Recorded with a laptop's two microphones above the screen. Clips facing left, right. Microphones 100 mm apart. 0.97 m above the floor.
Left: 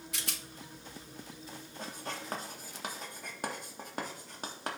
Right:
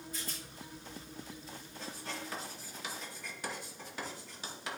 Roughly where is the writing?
Left.